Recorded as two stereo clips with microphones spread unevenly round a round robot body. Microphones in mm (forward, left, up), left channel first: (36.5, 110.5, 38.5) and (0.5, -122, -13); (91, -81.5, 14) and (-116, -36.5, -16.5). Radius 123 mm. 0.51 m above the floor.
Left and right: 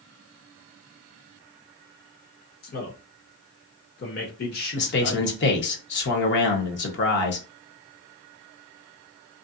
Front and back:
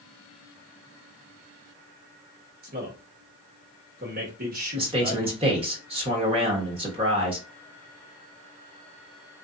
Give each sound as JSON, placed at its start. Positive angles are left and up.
{"t": 2.6, "sound": "a man speaking", "azimuth_deg": 135, "distance_m": 1.2}
{"t": 4.8, "sound": "a man speaking", "azimuth_deg": 120, "distance_m": 1.0}